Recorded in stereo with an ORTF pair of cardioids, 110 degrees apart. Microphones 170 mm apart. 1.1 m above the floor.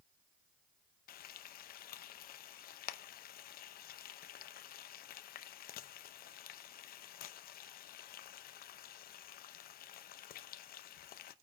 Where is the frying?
60° left, 0.8 m.